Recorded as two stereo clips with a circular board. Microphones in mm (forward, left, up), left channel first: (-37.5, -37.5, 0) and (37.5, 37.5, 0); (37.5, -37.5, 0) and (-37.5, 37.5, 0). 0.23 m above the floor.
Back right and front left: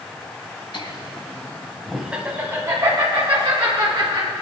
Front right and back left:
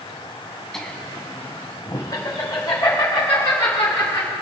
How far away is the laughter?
About 1.8 m.